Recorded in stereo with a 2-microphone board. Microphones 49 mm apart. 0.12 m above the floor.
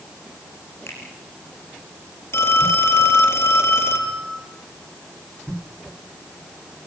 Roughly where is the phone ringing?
Left.